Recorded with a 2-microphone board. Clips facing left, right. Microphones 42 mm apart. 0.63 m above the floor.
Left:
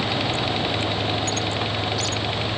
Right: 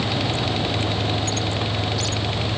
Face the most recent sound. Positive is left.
No sound to turn to.